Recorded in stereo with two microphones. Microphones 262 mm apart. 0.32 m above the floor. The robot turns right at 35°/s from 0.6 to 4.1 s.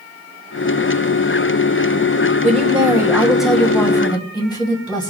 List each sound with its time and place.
2.4 s a woman speaking: 35° right, 1.8 m; by 5.1 s 20° left, 1.8 m